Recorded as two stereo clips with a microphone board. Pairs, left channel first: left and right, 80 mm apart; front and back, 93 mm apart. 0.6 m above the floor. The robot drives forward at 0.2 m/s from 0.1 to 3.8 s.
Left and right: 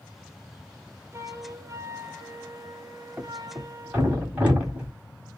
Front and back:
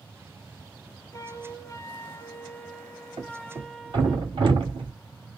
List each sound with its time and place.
1.1 s a flute: 45° right, 0.8 m; by 4.2 s 95° right, 0.6 m
3.2 s a thud: 160° right, 1.4 m; by 4.9 s 165° right, 1.6 m